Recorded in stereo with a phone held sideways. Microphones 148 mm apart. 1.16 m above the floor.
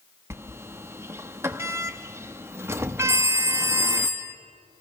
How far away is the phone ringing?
About 1.1 m.